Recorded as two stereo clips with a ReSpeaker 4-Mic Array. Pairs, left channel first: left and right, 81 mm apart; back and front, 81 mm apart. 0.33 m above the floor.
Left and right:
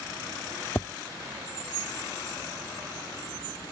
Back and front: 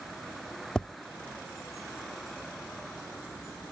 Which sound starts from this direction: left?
Tapping, at 0.8 s.